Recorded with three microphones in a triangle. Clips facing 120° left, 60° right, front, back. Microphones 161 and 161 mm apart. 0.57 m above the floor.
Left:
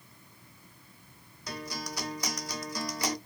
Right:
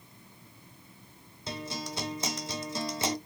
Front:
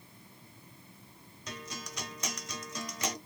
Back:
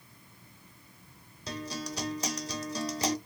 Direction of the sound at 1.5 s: 125° right.